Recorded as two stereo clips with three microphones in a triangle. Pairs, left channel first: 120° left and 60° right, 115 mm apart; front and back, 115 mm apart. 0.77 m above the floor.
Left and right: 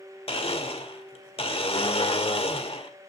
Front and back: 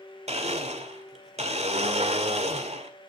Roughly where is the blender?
Behind left.